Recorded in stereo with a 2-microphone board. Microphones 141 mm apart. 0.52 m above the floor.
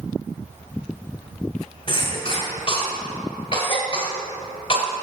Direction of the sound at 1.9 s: 40° left (ahead or behind).